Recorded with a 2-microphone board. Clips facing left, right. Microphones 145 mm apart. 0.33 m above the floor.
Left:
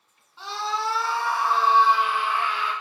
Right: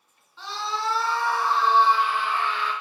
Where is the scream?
15° left (ahead or behind), 2.5 m.